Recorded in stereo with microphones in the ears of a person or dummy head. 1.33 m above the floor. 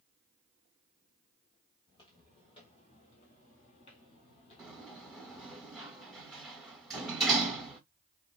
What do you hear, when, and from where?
1.9 s footsteps: 20° left (ahead or behind), 1.7 m; by 5.6 s 30° left (ahead or behind), 1.9 m
4.6 s a sliding door: centre (ahead or behind), 1.8 m